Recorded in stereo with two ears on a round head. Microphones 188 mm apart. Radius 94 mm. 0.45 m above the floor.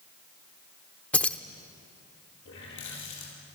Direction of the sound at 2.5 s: 60° left (ahead or behind).